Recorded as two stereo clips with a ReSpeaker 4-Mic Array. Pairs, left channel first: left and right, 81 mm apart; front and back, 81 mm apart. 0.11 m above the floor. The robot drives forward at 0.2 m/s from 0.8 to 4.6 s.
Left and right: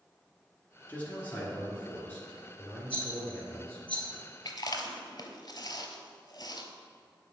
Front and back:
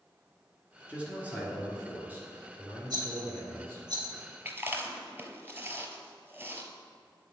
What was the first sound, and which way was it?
A man speaking, 125° left.